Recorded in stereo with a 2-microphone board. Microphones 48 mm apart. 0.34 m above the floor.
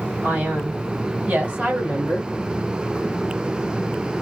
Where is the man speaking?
20° right (ahead or behind), 1.8 m.